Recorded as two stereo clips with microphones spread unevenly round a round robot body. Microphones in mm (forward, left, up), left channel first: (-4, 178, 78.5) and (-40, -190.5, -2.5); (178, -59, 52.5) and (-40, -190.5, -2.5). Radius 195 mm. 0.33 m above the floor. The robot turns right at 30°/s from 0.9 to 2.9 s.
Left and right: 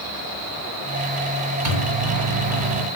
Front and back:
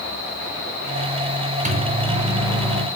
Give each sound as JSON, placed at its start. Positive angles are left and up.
{"t": 1.6, "sound": "a microwave", "azimuth_deg": -95, "distance_m": 2.5}